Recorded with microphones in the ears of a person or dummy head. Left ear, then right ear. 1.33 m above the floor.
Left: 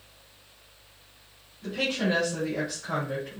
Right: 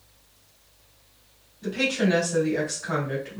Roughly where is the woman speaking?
Right.